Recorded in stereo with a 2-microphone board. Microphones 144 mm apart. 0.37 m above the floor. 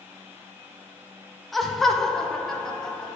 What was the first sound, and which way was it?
Laughter, centre (ahead or behind).